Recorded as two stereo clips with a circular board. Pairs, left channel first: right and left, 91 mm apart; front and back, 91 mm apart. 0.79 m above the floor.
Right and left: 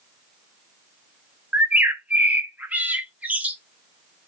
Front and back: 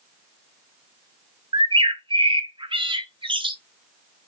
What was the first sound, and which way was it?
A bird, 165° left.